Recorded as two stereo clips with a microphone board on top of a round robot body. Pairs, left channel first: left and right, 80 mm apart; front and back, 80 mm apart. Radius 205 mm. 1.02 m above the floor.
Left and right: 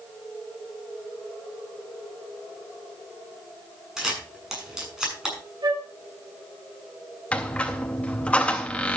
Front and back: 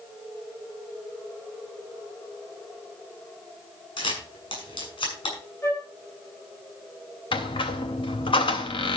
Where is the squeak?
15° left, 0.5 m.